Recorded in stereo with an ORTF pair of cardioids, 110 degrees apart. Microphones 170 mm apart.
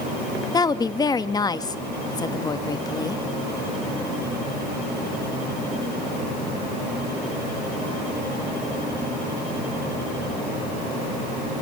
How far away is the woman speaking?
About 1.3 m.